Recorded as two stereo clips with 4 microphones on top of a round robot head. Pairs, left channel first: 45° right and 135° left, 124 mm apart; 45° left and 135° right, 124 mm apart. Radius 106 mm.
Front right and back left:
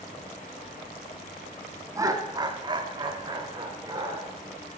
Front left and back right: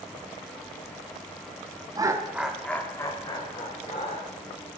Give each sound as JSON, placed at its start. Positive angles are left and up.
{"t": 1.9, "sound": "laughter", "azimuth_deg": -175, "distance_m": 1.4}